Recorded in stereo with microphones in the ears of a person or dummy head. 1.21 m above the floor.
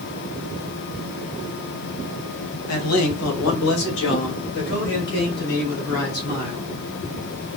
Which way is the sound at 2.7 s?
85° left.